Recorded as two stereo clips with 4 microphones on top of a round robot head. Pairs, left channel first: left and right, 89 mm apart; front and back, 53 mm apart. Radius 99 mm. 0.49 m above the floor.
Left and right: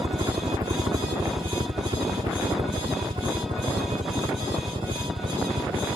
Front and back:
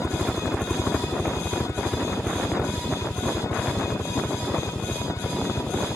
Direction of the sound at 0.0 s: 100° right.